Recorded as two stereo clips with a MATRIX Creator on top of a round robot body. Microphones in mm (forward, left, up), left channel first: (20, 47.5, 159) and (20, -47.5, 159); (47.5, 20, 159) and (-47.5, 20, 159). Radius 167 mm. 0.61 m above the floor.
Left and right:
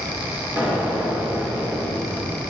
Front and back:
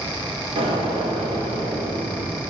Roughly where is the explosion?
Behind.